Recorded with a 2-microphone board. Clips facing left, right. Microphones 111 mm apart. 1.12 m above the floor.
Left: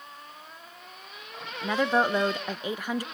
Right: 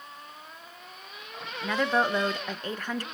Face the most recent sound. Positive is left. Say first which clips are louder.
# left 1 dB
turn(degrees=10)  # may be behind; listen again after turning